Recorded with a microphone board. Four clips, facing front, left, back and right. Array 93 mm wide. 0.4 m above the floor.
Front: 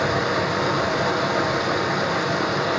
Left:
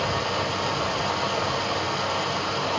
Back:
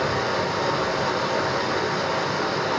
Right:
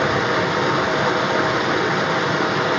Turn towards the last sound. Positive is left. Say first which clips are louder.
# right 7 dB, front 2 dB
turn(degrees=-75)